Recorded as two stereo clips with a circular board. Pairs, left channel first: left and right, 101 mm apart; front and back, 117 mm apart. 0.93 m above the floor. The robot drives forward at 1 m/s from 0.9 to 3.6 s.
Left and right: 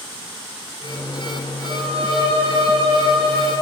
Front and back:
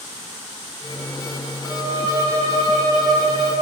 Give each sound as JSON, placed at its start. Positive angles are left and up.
{"t": 1.6, "sound": "a violin", "azimuth_deg": -115, "distance_m": 7.0}